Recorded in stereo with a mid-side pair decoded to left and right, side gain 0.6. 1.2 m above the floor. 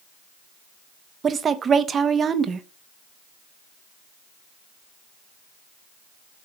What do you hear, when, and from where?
1.2 s a woman speaking: 35° right, 0.8 m